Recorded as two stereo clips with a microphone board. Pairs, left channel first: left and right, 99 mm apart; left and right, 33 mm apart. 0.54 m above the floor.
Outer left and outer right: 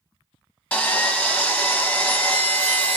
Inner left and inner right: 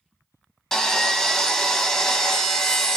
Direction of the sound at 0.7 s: 15° left (ahead or behind).